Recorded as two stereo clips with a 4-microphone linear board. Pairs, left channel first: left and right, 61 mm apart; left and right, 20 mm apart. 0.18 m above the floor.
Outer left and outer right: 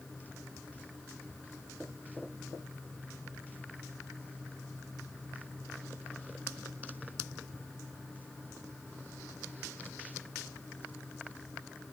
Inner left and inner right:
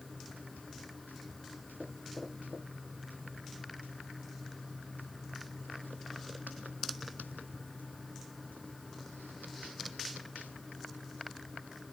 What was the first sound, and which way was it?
Only background noise.